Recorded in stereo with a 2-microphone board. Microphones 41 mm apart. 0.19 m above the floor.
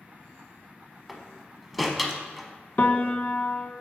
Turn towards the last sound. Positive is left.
turn(degrees=45)  # may be behind; listen again after turning